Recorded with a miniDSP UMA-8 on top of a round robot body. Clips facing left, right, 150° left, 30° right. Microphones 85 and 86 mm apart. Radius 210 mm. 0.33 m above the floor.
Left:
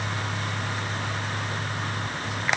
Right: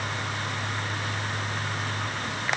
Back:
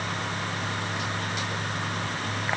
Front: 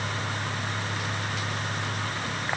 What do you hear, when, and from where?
Only background noise.